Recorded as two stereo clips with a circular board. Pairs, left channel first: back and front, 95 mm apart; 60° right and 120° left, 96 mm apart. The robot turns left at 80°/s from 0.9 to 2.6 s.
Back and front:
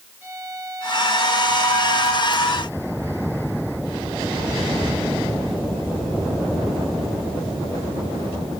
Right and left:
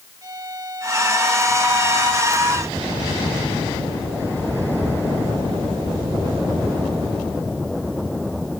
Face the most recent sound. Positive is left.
turn(degrees=-65)